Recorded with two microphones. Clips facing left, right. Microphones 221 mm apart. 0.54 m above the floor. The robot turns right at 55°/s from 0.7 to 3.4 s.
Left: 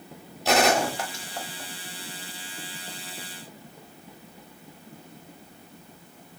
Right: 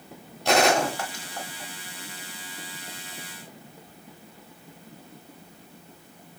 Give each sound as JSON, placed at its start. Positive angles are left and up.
{"t": 0.5, "sound": "a gunshot", "side_deg": 0, "distance_m": 0.9}